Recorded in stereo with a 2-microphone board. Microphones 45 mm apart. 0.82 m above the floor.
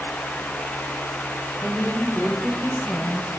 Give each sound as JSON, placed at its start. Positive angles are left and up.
{"t": 1.6, "sound": "a woman speaking", "side_deg": 50, "distance_m": 5.5}